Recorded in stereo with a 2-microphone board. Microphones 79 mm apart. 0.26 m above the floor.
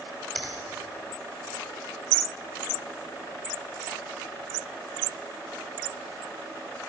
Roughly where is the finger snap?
Centre.